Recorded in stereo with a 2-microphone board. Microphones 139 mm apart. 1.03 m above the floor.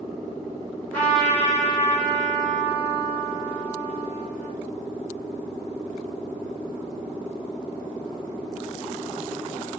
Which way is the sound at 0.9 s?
10° left (ahead or behind).